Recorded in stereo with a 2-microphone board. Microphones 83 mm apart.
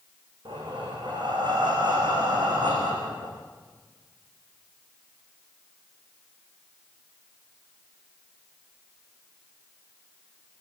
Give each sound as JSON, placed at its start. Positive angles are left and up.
{"t": 0.5, "sound": "breathing", "side_deg": -75, "distance_m": 8.5}